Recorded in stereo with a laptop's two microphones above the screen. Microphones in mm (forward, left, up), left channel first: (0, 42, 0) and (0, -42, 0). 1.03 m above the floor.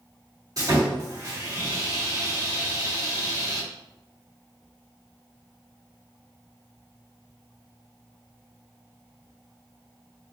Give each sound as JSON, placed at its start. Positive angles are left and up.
{"t": 0.6, "sound": "sawing", "side_deg": -50, "distance_m": 1.7}